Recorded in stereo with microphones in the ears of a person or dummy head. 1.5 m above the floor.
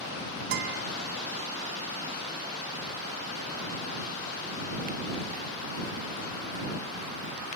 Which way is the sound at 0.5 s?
60° right (ahead or behind).